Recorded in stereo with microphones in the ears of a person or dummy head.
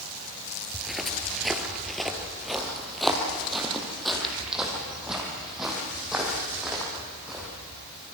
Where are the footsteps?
5° left (ahead or behind), 1.9 m; by 7.5 s centre (ahead or behind), 6.5 m.